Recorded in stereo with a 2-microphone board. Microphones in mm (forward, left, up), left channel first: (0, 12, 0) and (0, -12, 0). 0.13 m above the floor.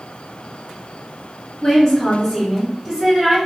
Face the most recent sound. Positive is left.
turn(degrees=-10)  # may be behind; listen again after turning